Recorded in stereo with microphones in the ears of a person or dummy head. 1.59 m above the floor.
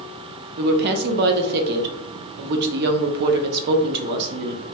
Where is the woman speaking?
55° right (ahead or behind), 0.5 m.